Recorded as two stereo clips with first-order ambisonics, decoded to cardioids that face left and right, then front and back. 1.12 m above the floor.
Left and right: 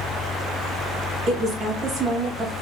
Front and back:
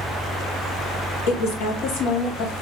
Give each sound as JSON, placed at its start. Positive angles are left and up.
{"t": 1.3, "sound": "a woman speaking", "azimuth_deg": -20, "distance_m": 1.7}